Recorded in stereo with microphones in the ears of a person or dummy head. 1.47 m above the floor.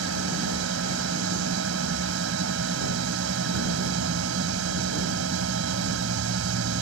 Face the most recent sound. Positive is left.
turn(degrees=-80)